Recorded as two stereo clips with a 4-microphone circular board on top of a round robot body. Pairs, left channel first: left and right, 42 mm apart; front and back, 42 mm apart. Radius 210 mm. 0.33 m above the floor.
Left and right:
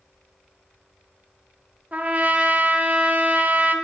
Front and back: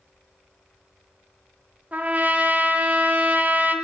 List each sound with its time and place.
1.9 s a trumpet: 135° right, 1.1 m